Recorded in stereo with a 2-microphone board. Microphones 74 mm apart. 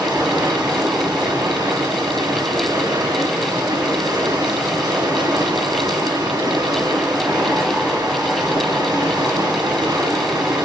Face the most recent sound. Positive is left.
turn(degrees=-80)